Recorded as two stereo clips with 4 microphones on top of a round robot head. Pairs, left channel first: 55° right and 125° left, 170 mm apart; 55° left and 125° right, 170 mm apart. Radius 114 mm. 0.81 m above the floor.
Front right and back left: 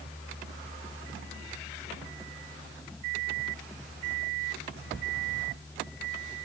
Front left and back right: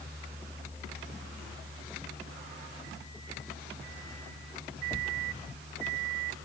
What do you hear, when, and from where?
Only background noise.